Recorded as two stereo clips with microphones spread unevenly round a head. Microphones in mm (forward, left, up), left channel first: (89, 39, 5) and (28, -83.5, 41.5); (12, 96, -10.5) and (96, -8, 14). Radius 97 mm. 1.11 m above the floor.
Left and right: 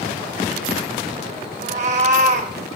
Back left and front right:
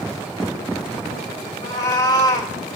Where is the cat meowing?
155° right, 0.6 m.